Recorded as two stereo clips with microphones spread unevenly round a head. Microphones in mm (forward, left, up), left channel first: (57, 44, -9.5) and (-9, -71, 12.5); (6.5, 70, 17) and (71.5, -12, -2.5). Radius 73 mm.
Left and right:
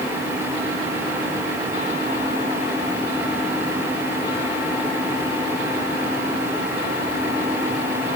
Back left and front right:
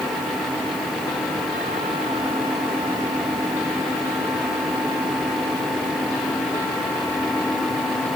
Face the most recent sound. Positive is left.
No sound to turn to.